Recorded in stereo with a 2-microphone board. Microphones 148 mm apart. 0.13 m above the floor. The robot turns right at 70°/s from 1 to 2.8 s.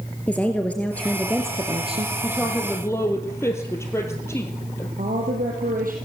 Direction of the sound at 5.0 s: 70° right (ahead or behind).